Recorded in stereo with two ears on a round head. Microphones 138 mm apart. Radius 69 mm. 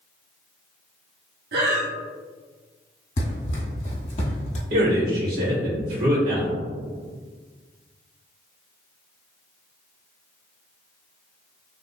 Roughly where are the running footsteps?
Left.